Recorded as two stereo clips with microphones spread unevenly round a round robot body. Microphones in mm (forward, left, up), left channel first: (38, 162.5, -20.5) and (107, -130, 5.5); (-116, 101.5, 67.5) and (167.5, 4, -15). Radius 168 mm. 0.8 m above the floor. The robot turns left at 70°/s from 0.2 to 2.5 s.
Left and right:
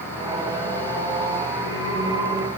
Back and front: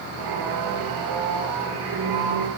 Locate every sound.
Only background noise.